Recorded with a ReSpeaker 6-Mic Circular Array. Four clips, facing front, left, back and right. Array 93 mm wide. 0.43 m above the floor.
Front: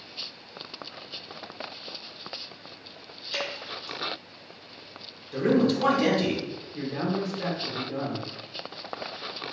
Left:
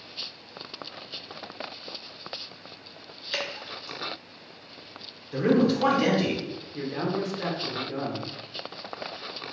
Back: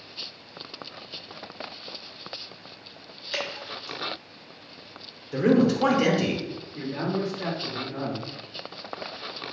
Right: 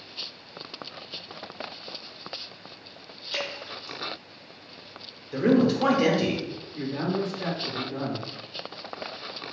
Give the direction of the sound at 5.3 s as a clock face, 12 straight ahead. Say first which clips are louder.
Right 1 dB, back 2 dB; 6 o'clock.